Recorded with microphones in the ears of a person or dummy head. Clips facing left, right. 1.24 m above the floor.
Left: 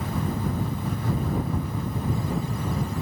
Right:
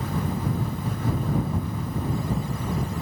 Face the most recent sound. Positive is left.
No sound to turn to.